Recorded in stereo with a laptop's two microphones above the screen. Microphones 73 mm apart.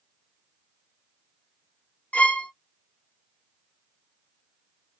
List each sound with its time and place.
2.1 s a violin: 20° left (ahead or behind), 0.5 m